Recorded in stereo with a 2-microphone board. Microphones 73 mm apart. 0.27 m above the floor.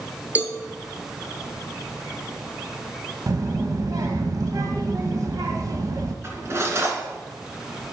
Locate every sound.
0.3 s a cowbell: 20° right (ahead or behind), 0.8 m
3.3 s a child speaking: 55° right (ahead or behind), 0.8 m
6.2 s cutlery clinking: 35° right (ahead or behind), 2 m